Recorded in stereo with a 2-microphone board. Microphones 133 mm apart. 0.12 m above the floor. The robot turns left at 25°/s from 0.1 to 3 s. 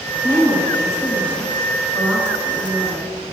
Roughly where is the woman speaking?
Right.